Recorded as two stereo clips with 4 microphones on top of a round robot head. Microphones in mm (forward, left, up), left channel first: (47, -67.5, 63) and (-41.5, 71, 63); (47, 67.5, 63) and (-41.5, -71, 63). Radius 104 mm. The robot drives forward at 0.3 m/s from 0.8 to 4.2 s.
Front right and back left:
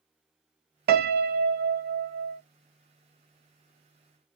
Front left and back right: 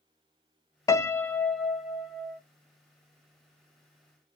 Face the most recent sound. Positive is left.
turn(degrees=165)